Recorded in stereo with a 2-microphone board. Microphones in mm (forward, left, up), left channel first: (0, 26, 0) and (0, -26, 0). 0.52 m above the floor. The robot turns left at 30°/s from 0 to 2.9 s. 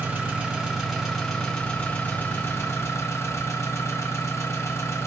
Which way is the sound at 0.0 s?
145° right.